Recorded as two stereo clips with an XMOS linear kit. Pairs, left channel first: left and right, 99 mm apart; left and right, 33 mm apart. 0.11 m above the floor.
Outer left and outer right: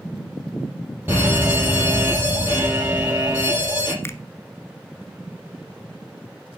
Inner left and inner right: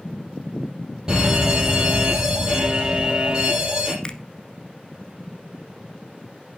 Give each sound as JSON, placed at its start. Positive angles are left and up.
{"t": 1.1, "sound": "a fire alarm", "side_deg": -20, "distance_m": 5.5}
{"t": 4.0, "sound": "a finger snap", "side_deg": 25, "distance_m": 1.0}